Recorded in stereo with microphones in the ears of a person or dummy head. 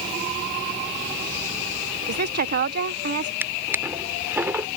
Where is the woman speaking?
55° right (ahead or behind).